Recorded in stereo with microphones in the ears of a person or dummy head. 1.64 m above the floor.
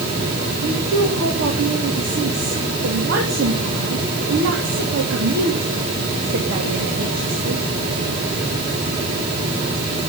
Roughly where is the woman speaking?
Right.